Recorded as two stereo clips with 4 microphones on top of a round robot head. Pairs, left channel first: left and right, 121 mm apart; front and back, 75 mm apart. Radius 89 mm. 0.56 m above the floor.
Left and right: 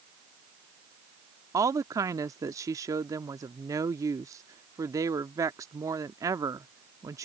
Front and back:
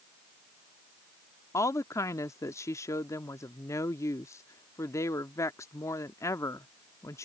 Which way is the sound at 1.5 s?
35° right.